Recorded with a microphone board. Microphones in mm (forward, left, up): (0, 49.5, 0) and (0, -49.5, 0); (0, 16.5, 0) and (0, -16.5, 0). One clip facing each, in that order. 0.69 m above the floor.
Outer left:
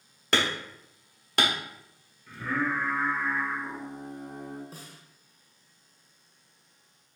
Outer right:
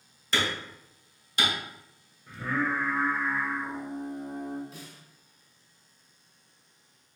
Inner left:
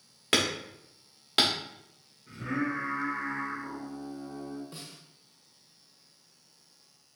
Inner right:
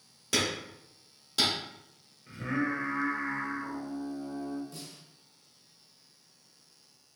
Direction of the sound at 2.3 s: 30° right (ahead or behind).